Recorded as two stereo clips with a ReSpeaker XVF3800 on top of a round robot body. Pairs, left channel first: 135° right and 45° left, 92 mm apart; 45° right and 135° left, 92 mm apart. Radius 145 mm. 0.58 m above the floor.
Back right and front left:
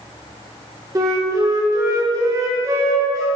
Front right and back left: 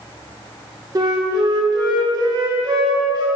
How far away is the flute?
About 2 m.